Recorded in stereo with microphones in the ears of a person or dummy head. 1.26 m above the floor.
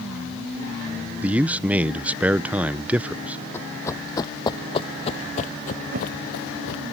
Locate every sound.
1.2 s a man speaking: 10° right (ahead or behind)
3.5 s running footsteps: 10° left (ahead or behind); by 6.9 s 60° left (ahead or behind)
5.9 s a whoosh: 50° right (ahead or behind)